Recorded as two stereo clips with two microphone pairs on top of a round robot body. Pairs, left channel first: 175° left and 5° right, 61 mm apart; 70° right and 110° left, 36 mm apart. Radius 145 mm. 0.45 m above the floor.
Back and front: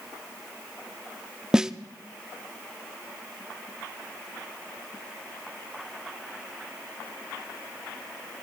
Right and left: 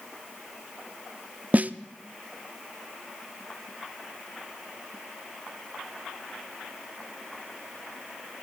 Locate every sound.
1.5 s a snare drum: 70° left, 0.6 m